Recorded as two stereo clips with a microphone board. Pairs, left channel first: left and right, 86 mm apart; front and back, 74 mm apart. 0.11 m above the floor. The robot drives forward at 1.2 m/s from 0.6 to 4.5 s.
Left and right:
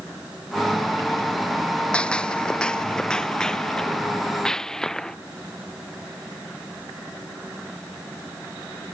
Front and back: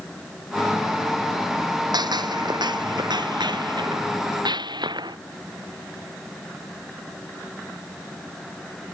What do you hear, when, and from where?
1.9 s a gunshot: 170° left; by 5.2 s 175° left